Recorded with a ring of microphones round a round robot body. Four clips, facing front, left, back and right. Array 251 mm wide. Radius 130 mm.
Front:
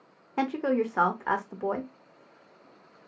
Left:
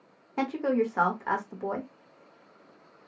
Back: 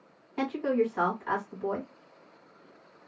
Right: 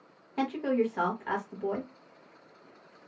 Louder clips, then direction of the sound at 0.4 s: Left 1 dB, front 1 dB; 25° left.